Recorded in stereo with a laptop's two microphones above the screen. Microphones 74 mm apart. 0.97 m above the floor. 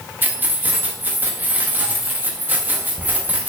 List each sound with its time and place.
0.2 s keys jangling: 25° right (ahead or behind), 0.7 m